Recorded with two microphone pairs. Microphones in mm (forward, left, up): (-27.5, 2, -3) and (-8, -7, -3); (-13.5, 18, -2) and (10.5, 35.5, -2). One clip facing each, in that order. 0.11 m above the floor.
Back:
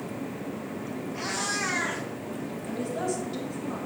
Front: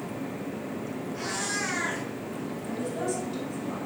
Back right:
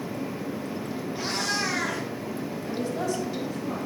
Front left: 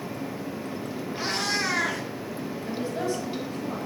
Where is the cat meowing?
75° left, 2.5 m.